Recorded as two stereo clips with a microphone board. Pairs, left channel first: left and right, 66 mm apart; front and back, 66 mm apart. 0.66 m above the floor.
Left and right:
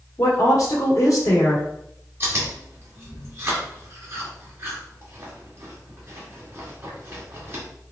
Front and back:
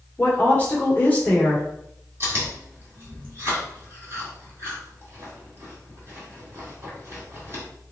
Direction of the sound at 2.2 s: 135° right.